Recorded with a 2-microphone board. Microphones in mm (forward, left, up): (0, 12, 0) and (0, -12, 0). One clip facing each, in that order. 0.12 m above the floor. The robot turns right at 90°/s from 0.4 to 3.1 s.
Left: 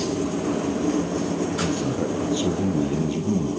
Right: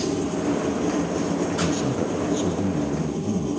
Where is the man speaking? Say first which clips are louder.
Right 1 dB; 35° right, 3 m; by 3.5 s 95° left, 3 m.